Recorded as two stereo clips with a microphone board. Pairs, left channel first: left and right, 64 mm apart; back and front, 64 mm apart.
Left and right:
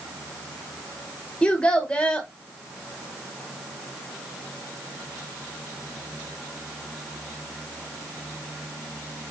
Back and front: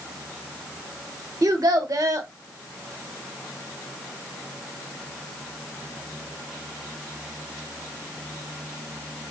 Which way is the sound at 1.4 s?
15° left.